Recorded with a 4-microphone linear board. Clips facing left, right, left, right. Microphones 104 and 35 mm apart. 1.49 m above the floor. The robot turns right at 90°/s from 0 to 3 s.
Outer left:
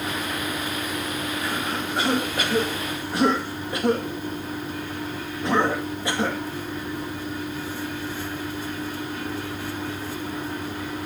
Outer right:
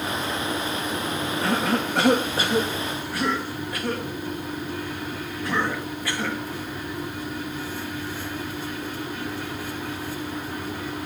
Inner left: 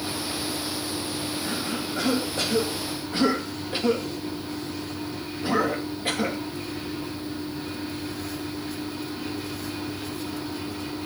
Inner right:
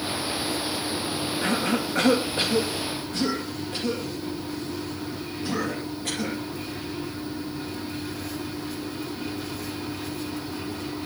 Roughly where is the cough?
Right.